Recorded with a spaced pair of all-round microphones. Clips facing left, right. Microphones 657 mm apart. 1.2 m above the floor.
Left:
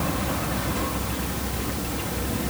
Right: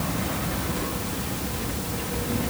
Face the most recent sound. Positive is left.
No sound to turn to.